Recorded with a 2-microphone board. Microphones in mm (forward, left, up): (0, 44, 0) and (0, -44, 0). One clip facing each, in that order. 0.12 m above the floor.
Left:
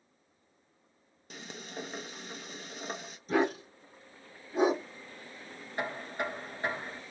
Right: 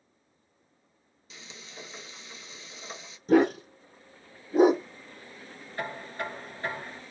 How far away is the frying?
About 0.6 m.